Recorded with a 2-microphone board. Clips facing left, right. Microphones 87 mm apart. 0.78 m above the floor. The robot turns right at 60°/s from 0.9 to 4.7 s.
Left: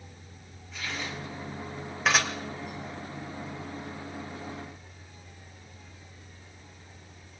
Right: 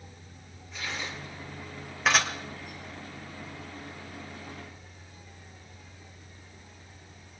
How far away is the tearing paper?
About 7.5 m.